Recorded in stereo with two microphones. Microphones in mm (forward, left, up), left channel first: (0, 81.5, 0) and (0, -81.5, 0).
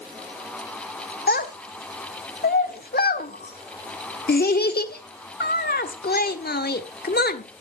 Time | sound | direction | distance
1.3 | a child speaking | 75° left (ahead or behind) | 1.3 m